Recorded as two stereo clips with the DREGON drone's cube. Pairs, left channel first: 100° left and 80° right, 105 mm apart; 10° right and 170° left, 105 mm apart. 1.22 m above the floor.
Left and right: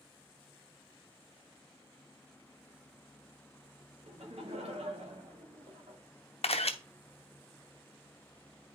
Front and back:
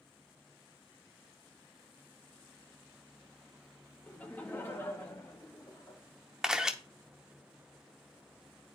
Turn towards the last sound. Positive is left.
turn(degrees=85)